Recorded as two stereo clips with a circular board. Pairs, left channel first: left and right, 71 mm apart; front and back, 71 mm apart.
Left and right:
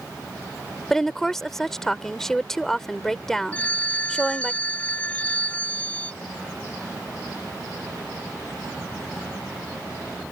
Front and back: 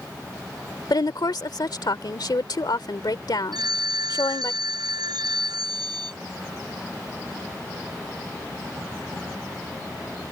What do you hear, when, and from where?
0.9 s a woman speaking: 5° left
3.5 s a phone ringing: 160° left